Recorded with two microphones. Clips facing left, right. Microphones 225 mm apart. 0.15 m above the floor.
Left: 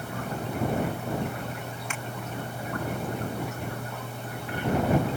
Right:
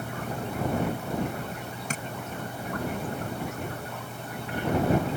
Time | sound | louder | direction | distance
1.9 | tapping | right 3 dB | 40° right (ahead or behind) | ?